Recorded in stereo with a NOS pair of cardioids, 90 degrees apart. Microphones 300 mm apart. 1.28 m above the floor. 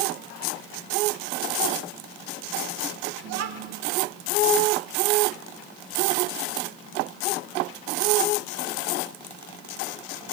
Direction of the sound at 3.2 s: 60° right.